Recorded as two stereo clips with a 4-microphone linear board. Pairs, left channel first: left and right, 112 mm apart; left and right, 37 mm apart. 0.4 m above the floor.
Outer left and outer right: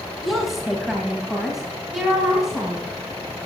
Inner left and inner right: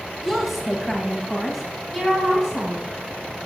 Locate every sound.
0.2 s a woman speaking: centre (ahead or behind), 1.9 m; by 2.8 s 5° right (ahead or behind), 3.5 m